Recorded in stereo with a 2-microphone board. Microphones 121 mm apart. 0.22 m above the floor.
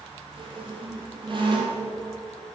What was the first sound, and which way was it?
A squeak, 45° right (ahead or behind).